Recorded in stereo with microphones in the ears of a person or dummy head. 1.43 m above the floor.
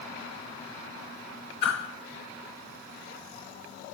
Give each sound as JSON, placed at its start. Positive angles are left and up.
{"t": 1.6, "sound": "a whoosh", "side_deg": 50, "distance_m": 4.5}